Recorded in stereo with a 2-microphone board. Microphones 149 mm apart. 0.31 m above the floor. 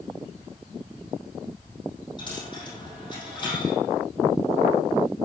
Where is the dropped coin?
30° left (ahead or behind), 5 m.